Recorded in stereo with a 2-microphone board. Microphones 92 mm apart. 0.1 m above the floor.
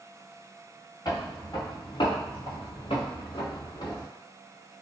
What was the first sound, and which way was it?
Footsteps, 45° left (ahead or behind).